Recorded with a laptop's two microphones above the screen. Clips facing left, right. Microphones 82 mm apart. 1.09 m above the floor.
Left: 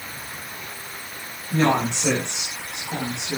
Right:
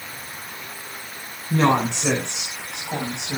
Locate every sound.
1.5 s a woman speaking: 85° right, 8.5 m; by 3.4 s 90° right, 6.5 m